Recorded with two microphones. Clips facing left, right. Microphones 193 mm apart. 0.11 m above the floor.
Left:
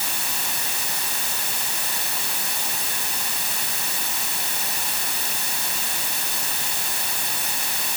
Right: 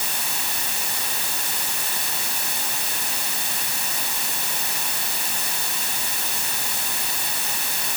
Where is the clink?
No clink in this recording.